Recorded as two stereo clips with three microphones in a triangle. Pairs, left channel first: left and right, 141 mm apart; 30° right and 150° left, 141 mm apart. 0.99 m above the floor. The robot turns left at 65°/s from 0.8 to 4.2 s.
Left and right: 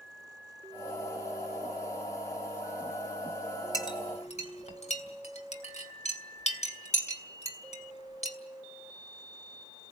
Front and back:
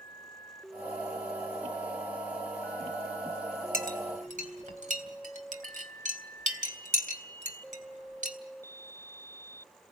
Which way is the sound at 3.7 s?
155° left.